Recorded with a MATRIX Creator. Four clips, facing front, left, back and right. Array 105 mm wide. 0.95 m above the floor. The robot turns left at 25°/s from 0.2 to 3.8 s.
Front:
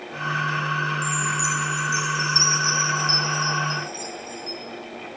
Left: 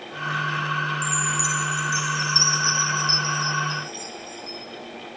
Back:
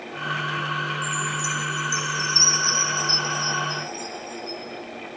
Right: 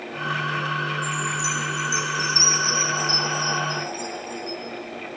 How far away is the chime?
About 0.8 m.